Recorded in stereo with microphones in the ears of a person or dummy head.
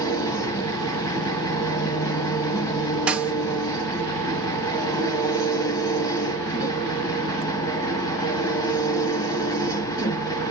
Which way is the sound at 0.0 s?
25° left (ahead or behind).